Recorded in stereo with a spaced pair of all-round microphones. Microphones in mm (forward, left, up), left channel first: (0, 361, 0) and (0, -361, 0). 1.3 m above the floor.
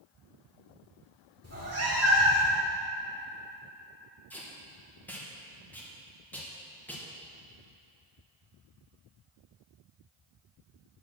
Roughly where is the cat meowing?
Centre.